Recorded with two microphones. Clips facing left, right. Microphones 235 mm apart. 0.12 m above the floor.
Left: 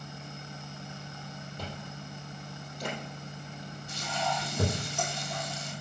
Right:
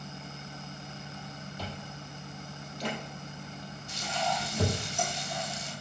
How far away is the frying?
About 2.5 m.